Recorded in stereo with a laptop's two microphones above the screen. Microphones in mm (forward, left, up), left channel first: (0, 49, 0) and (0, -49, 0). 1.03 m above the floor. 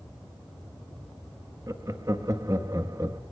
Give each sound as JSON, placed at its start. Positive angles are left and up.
{"t": 1.7, "sound": "laughter", "side_deg": -35, "distance_m": 1.2}